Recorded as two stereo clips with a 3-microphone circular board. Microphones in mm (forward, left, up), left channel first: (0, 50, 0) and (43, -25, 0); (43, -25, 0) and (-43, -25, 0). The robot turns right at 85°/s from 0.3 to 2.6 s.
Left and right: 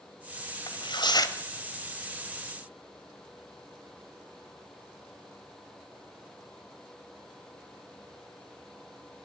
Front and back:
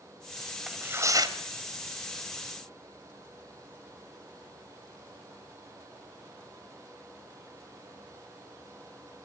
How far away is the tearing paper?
About 1.9 m.